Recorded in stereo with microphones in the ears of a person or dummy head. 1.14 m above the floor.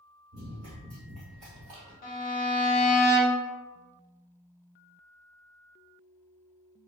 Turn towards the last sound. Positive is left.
turn(degrees=40)  # may be behind; listen again after turning